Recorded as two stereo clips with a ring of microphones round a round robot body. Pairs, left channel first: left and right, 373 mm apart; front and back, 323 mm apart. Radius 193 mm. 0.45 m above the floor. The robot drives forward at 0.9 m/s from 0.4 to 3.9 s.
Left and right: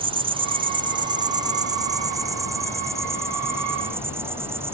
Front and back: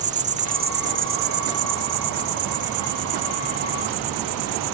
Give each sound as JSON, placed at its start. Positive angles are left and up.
{"t": 0.0, "sound": "an insect", "azimuth_deg": -150}